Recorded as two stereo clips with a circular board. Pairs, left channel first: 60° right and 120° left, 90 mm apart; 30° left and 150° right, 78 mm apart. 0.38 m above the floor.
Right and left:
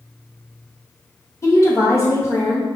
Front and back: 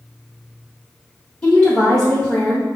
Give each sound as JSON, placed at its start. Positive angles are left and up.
{"t": 1.4, "sound": "a woman speaking", "azimuth_deg": -35, "distance_m": 1.1}